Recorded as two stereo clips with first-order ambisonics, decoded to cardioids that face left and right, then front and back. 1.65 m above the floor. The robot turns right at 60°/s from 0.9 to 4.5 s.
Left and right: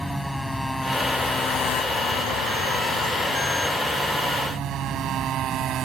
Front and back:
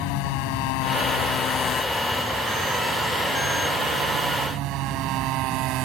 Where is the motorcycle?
Straight ahead; by 5.9 s 145° right.